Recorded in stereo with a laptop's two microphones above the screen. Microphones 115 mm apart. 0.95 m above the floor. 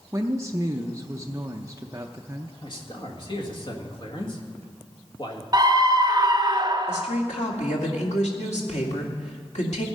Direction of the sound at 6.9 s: 80° left.